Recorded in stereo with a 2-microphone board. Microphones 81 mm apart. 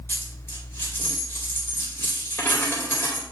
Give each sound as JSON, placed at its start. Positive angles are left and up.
{"t": 0.1, "sound": "a dropped coin", "side_deg": 30, "distance_m": 2.0}